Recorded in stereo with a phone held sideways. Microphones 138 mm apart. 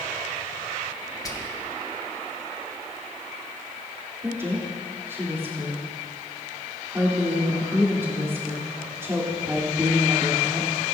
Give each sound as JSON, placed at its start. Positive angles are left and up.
{"t": 1.2, "sound": "whispering", "side_deg": 25, "distance_m": 1.4}
{"t": 4.2, "sound": "a woman speaking", "side_deg": -20, "distance_m": 3.0}